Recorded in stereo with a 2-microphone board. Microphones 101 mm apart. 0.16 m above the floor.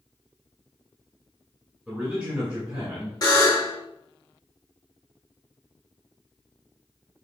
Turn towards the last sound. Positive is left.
turn(degrees=40)  # may be behind; listen again after turning